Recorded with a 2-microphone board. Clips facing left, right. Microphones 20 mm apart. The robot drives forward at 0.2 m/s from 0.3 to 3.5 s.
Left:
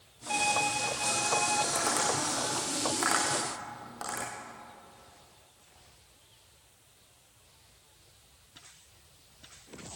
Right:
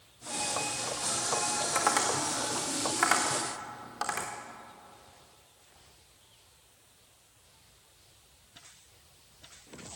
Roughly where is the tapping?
Right.